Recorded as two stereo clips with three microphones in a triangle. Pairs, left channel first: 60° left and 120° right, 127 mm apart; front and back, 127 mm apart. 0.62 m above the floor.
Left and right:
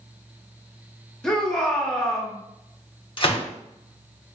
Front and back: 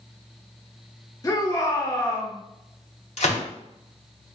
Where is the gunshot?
15° left, 1.0 m.